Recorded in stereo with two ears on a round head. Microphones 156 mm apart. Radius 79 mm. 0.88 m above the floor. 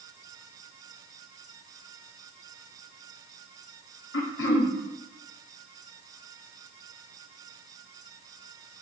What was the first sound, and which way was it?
Throat clearing, 75° left (ahead or behind).